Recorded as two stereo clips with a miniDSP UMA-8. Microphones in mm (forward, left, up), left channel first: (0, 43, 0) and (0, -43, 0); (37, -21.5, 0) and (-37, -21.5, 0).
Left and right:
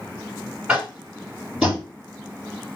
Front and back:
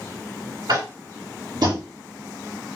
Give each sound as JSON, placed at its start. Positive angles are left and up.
{"t": 0.7, "sound": "tapping", "azimuth_deg": -170, "distance_m": 4.0}